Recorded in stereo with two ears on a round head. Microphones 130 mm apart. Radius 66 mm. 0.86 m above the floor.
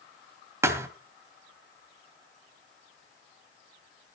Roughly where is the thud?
Centre.